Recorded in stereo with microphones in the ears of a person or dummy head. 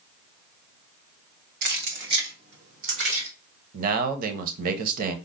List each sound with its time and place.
1.6 s keys jangling: 55° right (ahead or behind), 0.7 m; by 3.3 s 70° right (ahead or behind), 2 m
3.7 s a man speaking: 50° right (ahead or behind), 0.7 m